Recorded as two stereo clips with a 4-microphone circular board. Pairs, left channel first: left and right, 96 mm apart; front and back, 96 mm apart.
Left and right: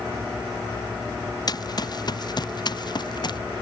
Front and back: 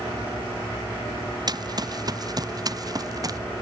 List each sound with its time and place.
1.5 s running footsteps: 135° left; by 3.4 s 130° left